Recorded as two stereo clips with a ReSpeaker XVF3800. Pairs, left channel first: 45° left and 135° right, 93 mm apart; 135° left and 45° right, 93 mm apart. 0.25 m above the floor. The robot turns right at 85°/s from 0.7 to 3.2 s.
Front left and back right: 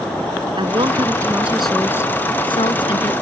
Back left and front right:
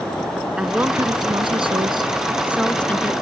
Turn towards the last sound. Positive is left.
turn(degrees=85)